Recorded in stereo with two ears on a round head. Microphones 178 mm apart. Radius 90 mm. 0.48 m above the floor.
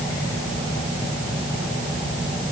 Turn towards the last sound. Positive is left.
No sound to turn to.